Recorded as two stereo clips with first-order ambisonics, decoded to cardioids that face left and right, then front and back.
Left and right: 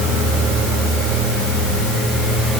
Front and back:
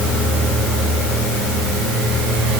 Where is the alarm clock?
I don't hear an alarm clock.